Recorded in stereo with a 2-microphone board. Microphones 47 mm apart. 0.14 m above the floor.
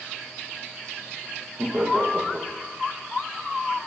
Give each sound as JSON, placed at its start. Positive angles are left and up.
{"t": 1.6, "sound": "laughter", "side_deg": -35, "distance_m": 8.5}